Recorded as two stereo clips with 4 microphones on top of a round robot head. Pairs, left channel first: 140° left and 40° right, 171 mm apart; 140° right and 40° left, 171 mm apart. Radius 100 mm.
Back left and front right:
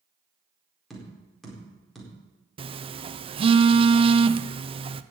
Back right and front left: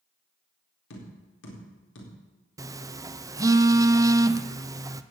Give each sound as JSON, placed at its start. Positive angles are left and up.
{"t": 0.9, "sound": "tapping", "azimuth_deg": -130, "distance_m": 4.0}
{"t": 2.6, "sound": "a phone buzzing", "azimuth_deg": -15, "distance_m": 0.6}